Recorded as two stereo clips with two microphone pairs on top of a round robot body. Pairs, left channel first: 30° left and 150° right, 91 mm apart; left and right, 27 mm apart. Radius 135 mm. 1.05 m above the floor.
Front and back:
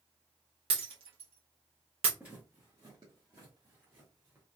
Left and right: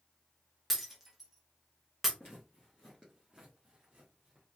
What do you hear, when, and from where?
0.7 s breaking glass: 175° right, 0.7 m
2.2 s footsteps: 135° left, 1.1 m; by 4.5 s 100° right, 1.4 m